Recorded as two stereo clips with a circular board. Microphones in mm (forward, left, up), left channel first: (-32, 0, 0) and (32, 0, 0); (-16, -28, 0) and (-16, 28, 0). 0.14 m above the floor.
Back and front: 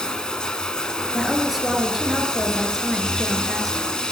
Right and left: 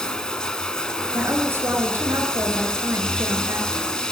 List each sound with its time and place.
0.0 s running water: 130° right, 1.3 m
1.1 s a woman speaking: 85° left, 2.5 m